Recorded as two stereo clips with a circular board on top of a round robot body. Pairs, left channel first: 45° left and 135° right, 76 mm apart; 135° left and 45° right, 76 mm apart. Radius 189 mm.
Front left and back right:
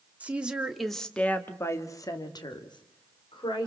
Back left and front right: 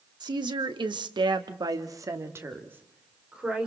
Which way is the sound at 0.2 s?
65° right.